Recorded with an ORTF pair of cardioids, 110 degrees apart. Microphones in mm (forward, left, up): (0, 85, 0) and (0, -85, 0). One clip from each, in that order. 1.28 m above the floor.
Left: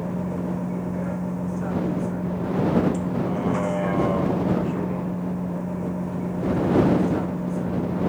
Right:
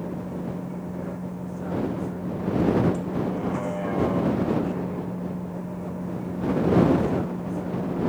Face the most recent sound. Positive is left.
turn(degrees=25)